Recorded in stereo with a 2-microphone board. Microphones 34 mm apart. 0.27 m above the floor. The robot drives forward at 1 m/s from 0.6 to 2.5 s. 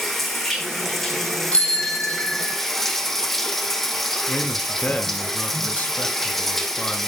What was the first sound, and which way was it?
Running water, 5° left (ahead or behind).